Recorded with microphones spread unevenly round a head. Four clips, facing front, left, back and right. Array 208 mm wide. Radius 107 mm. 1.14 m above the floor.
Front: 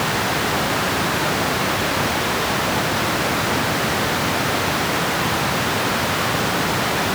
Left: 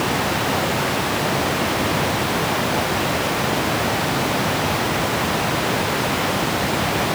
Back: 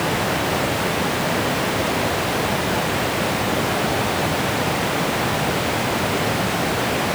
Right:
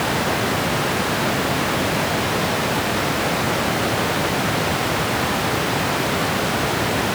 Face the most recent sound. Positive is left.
No sound to turn to.